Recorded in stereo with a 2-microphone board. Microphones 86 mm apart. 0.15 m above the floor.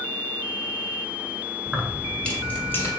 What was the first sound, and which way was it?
Keys jangling, centre (ahead or behind).